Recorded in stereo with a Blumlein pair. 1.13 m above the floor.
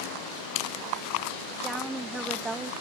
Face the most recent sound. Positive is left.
turn(degrees=-15)